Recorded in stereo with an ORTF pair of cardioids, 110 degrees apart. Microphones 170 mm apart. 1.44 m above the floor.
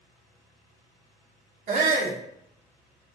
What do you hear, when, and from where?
1.7 s a shout: 55° right, 1.1 m